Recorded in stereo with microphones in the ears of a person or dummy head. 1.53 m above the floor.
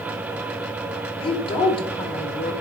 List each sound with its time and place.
1.2 s a woman speaking: 25° left (ahead or behind), 1.5 m